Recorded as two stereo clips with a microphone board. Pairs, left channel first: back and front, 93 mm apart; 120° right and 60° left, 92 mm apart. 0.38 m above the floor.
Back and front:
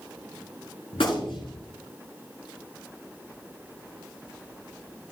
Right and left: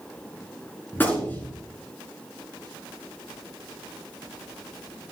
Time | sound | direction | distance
0.9 | a gunshot | 170° left | 4.5 m